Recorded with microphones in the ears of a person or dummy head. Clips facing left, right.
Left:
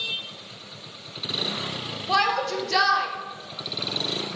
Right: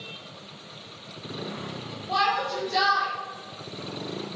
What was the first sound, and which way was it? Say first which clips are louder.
A shout: left 2 dB; 70° left (ahead or behind).